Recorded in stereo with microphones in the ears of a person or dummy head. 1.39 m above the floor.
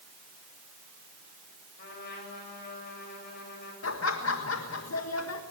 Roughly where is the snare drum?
No snare drum in this recording.